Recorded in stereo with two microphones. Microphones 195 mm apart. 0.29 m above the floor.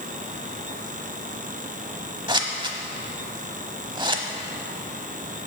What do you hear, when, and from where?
2.3 s scissors: 25° right (ahead or behind), 0.8 m